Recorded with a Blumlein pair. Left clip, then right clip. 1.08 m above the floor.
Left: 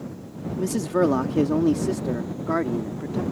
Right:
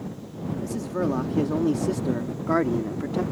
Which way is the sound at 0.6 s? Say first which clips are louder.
Left 7 dB; 30° left.